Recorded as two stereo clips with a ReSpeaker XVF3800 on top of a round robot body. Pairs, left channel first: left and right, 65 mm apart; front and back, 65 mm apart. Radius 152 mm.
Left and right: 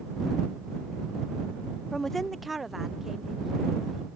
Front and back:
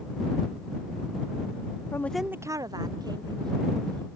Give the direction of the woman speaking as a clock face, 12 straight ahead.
12 o'clock.